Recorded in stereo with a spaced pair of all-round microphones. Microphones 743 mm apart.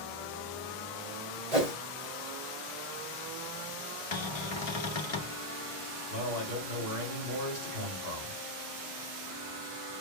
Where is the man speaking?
75° right (ahead or behind), 3.5 m.